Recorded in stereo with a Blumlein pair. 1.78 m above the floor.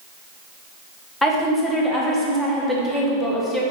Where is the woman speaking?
10° left, 0.8 m.